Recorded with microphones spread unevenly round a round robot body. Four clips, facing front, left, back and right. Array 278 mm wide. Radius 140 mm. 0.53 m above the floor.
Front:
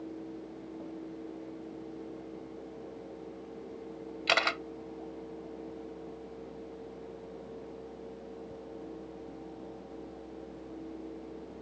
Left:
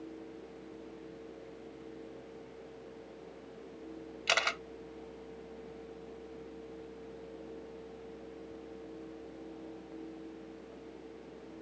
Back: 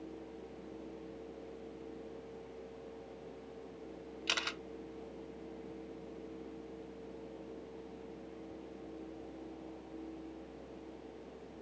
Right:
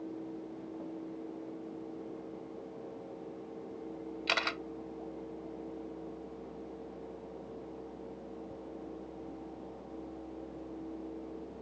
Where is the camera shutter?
25° left.